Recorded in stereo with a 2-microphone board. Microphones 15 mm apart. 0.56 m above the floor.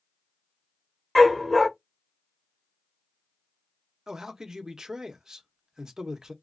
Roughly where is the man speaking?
Right.